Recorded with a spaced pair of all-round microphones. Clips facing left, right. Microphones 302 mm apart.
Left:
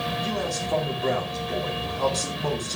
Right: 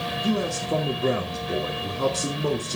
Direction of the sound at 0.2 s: 35° right (ahead or behind).